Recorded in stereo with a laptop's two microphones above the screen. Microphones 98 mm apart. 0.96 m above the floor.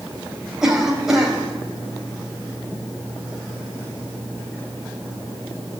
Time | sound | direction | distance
0.6 | a cough | 5° right (ahead or behind) | 4.5 m